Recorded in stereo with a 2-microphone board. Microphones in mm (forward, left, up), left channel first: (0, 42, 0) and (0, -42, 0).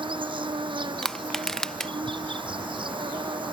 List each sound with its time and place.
0.0 s an insect: 80° right
1.0 s crushing: 5° left (ahead or behind)